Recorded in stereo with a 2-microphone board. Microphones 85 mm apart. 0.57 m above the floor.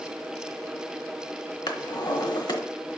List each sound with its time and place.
1.7 s a drawer: 60° left (ahead or behind), 0.9 m